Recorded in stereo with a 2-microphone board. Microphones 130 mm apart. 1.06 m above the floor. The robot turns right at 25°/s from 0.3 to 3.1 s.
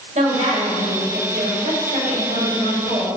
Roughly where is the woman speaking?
Right.